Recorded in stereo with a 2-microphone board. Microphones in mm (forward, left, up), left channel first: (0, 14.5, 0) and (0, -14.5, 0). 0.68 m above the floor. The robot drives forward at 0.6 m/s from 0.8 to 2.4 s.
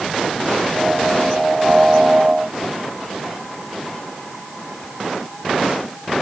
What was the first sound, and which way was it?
Only background noise.